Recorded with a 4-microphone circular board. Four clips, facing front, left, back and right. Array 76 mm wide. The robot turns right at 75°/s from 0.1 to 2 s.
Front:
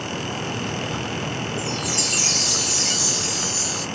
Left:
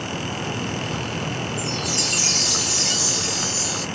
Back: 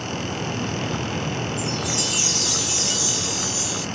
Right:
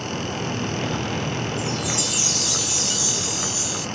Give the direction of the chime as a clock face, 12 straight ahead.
12 o'clock.